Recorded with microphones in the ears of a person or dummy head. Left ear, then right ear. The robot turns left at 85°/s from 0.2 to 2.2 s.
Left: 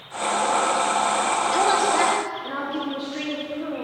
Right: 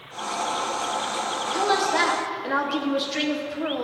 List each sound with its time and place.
1.5 s a woman speaking: 30° left, 0.5 m; by 3.8 s 30° right, 0.5 m